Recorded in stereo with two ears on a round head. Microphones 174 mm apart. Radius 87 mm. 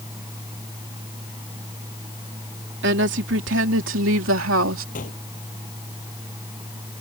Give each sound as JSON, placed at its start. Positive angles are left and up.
{"t": 2.8, "sound": "a woman speaking", "side_deg": -60}
{"t": 5.0, "sound": "a gunshot", "side_deg": 45}